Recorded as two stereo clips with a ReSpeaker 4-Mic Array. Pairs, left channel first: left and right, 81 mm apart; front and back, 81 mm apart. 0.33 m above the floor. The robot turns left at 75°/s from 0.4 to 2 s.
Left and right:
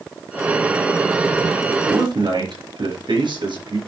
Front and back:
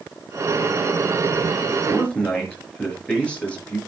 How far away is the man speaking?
About 5 m.